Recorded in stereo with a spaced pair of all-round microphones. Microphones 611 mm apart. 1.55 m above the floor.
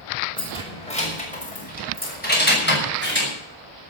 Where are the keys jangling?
10° left (ahead or behind), 5.5 m; by 3.3 s 20° left (ahead or behind), 7 m.